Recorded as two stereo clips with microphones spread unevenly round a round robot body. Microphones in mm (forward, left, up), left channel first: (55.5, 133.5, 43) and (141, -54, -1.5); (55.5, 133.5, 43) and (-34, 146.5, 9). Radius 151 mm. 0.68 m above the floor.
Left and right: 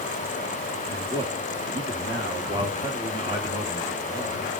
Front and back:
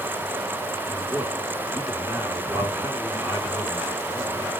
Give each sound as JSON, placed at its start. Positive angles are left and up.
{"t": 0.9, "sound": "a man speaking", "azimuth_deg": -105, "distance_m": 1.2}